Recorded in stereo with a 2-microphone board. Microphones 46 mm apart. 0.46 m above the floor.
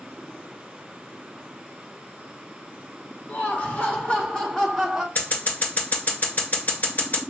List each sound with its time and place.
3.3 s laughter: 45° left (ahead or behind), 1.9 m; by 5.0 s 10° right (ahead or behind), 1.4 m
5.2 s scissors: 40° left (ahead or behind), 1.9 m